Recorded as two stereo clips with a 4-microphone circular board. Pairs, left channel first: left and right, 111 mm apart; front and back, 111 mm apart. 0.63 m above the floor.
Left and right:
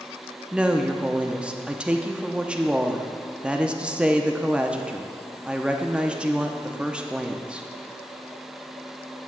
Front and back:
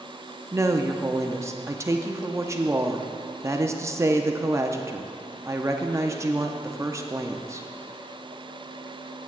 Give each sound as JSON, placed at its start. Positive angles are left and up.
{"t": 0.5, "sound": "a woman speaking", "azimuth_deg": -160, "distance_m": 0.6}